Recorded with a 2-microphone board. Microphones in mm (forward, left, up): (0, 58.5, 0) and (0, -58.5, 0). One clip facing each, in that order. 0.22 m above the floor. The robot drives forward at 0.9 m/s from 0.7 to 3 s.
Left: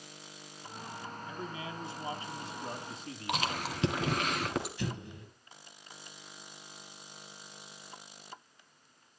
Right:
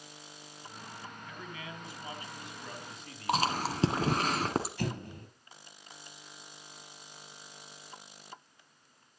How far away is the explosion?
About 3 m.